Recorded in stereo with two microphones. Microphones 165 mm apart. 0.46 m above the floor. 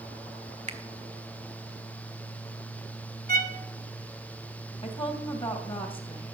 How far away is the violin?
About 1.0 m.